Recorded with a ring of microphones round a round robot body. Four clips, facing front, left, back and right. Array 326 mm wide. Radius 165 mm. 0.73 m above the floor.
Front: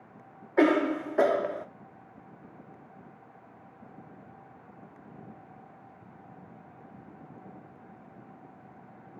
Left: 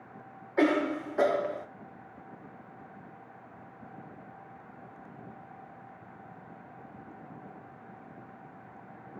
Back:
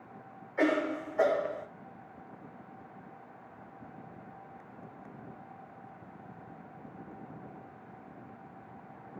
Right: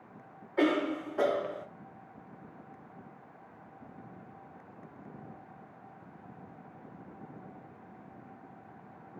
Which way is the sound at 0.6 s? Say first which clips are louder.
Left 2 dB, front 6 dB; 10° left.